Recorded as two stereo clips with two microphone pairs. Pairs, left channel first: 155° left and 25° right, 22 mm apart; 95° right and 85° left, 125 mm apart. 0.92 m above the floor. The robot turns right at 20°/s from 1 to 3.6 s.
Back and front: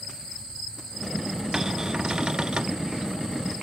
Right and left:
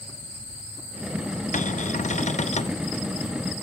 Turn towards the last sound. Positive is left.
turn(degrees=-50)